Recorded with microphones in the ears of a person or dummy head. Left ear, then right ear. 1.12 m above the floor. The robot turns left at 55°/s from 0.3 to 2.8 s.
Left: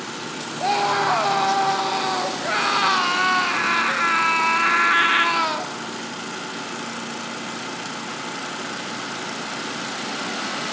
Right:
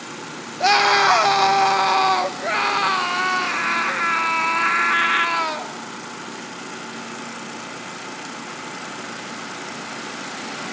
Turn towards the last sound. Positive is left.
turn(degrees=-175)